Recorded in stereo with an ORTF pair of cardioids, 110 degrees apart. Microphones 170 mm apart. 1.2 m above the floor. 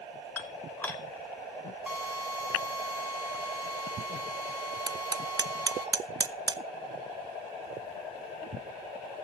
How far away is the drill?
About 2.5 m.